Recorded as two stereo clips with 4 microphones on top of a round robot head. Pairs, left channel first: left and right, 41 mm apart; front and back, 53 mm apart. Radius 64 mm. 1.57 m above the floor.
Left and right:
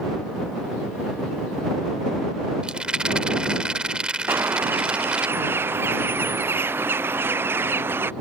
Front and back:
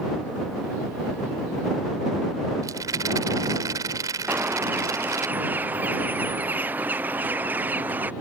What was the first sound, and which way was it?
A rattle, 155° right.